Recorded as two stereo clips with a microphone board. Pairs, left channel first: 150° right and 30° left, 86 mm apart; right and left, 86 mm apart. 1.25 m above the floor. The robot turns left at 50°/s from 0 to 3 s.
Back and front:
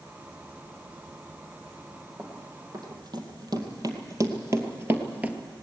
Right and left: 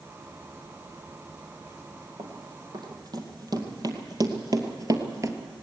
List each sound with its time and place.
2.2 s running footsteps: 90° left, 3 m; by 5.4 s 95° left, 1.5 m